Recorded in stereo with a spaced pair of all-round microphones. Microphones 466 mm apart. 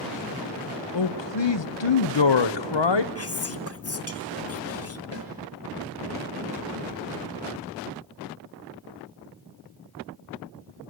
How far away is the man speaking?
About 0.8 m.